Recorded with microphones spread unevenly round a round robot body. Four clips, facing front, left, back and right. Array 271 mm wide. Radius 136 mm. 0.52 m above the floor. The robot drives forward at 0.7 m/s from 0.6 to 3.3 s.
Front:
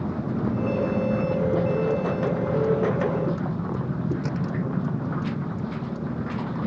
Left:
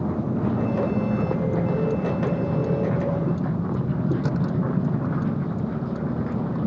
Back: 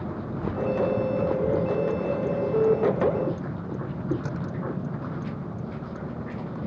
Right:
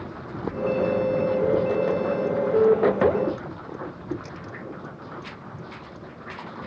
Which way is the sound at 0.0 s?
60° left.